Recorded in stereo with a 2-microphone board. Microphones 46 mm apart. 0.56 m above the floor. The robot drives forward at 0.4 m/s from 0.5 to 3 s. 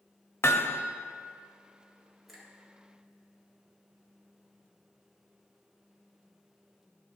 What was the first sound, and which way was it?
Hammering, 70° left (ahead or behind).